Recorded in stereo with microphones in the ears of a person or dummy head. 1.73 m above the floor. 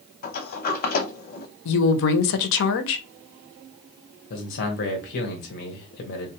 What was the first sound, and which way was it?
A sliding door, 45° left (ahead or behind).